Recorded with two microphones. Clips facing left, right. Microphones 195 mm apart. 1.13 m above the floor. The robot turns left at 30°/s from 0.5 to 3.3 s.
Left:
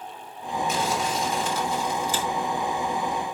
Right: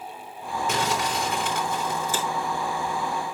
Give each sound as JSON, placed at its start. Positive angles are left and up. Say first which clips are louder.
{"t": 0.7, "sound": "crumpling", "louder": "right 1 dB", "azimuth_deg": -85, "distance_m": 3.5}